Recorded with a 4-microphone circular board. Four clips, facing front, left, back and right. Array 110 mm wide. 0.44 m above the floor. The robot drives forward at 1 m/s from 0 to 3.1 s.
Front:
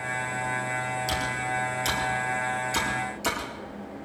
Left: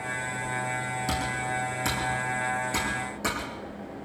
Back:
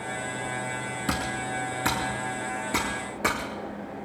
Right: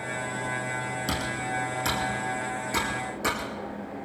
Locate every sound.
1.1 s typing on a keyboard: 175° right, 3 m; by 3.5 s straight behind, 5 m